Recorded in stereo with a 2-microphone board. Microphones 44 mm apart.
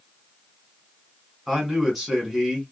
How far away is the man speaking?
About 1.2 m.